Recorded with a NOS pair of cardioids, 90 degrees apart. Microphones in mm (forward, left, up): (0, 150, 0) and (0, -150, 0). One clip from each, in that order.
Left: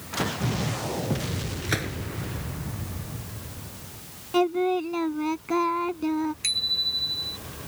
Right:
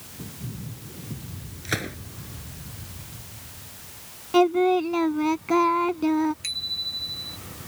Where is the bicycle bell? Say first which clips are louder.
Left 4 dB; 30° left.